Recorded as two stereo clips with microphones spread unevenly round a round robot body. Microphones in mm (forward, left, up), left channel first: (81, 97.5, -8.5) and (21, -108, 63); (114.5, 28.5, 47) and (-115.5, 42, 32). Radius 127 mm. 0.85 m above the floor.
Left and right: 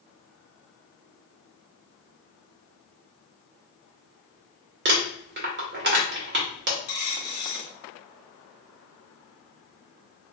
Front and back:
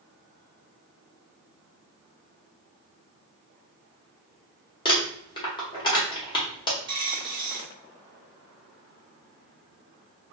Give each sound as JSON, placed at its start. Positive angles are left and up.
{"t": 4.8, "sound": "crumpling", "azimuth_deg": -70, "distance_m": 1.2}
{"t": 6.9, "sound": "a dropped coin", "azimuth_deg": 105, "distance_m": 1.6}